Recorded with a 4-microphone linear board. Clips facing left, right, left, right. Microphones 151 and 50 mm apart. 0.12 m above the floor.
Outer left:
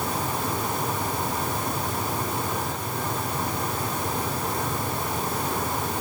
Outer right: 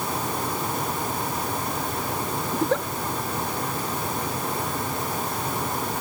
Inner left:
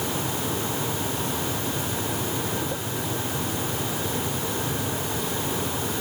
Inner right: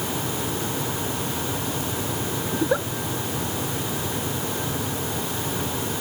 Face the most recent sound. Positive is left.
turn(degrees=-80)